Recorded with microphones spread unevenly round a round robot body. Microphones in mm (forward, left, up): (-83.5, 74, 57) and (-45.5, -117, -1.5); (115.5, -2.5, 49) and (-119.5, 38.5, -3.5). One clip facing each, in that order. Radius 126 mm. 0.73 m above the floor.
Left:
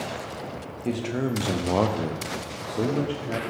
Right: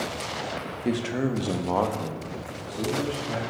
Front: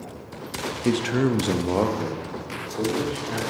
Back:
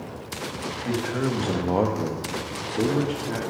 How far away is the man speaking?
About 0.9 m.